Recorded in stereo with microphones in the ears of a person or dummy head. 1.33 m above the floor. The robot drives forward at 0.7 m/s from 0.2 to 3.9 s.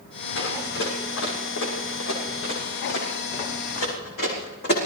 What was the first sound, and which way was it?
Running footsteps, 75° left (ahead or behind).